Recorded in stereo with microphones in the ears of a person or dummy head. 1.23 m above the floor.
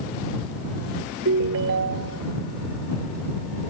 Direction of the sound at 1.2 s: 65° right (ahead or behind).